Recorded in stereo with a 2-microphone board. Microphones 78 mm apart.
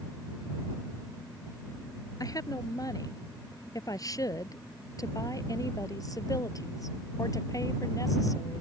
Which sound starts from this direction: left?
A woman speaking, at 2.2 s.